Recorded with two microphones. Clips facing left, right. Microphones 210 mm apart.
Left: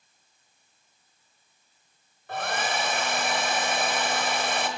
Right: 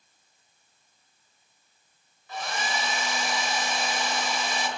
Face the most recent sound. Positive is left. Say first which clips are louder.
# left 3 dB
turn(degrees=55)  # may be behind; listen again after turning